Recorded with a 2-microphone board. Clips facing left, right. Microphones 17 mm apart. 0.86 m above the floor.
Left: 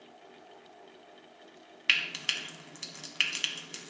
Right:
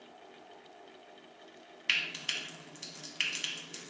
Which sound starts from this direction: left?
Frying, at 1.9 s.